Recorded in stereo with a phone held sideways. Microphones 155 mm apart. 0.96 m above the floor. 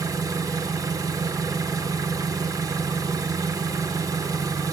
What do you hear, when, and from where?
0.0 s an engine running: 25° right (ahead or behind), 0.8 m